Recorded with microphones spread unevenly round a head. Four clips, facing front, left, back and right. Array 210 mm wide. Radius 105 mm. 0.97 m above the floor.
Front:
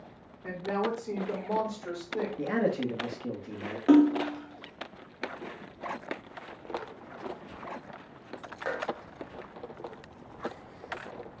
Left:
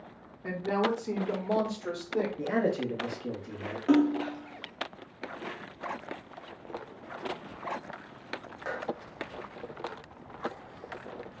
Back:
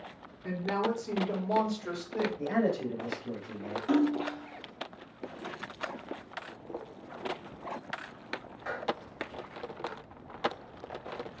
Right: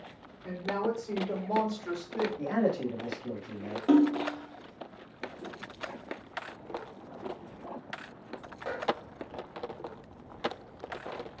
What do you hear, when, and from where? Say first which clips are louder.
0.4 s a woman speaking: left 3 dB, even; 75° left, 1.1 m; by 2.3 s 90° left, 2.0 m
2.4 s a man speaking: right 1 dB, front 2 dB; 35° left, 1.4 m
3.9 s a splash: right 1 dB, front 7 dB; 20° right, 0.5 m